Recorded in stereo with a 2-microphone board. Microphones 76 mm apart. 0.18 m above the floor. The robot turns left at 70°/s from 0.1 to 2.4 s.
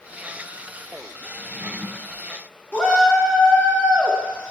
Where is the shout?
20° left (ahead or behind), 1.7 m.